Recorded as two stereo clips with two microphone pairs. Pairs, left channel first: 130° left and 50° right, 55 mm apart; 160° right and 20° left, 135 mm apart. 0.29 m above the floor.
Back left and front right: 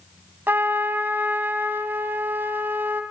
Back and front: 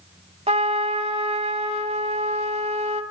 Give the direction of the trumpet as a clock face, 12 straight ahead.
12 o'clock.